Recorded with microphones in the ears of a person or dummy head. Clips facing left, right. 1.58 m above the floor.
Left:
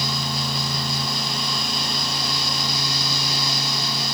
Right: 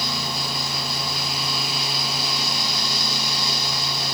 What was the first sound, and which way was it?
Only background noise.